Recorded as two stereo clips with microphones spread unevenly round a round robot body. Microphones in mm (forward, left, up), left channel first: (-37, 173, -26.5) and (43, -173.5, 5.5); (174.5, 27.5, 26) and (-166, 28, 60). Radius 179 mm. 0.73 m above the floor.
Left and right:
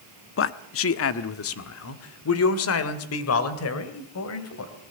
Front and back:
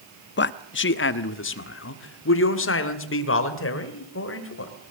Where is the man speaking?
55° left, 0.9 m.